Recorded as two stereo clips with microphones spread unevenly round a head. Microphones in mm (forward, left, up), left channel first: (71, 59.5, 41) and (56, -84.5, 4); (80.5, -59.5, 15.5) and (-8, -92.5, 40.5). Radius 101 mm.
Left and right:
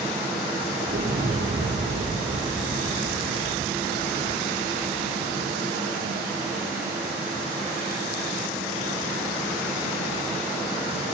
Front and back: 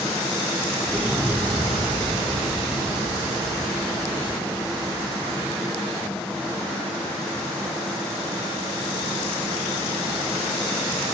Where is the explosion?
60° right, 5 m.